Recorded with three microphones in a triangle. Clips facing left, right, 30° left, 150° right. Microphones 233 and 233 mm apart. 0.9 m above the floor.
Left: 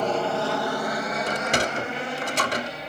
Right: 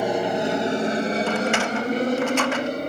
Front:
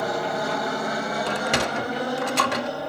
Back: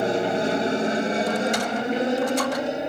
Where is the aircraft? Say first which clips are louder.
Right 3 dB, back 5 dB; 155° right; by 2.9 s 85° right.